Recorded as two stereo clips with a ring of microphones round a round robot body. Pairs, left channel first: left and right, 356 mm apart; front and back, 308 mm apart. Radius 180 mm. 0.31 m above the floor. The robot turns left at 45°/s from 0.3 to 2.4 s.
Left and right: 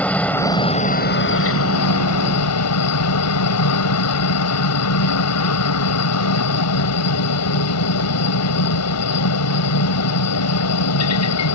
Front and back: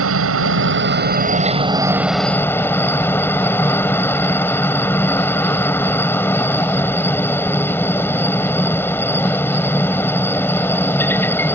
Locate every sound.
0.0 s a helicopter: 175° left; by 11.6 s 80° left